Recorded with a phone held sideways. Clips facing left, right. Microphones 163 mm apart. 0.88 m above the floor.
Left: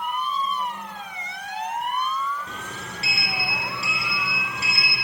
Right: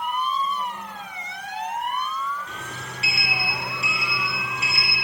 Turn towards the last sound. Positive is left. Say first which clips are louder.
# left 1 dB
turn(degrees=35)  # may be behind; listen again after turning